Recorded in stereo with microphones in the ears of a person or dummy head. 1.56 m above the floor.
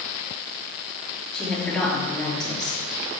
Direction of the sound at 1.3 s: Centre (ahead or behind).